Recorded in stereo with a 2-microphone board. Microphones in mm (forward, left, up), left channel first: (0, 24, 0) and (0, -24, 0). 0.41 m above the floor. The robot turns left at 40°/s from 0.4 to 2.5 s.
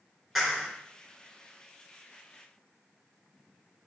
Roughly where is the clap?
Centre.